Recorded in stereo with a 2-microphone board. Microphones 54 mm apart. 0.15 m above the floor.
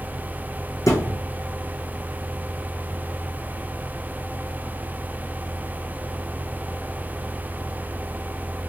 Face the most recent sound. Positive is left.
turn(degrees=80)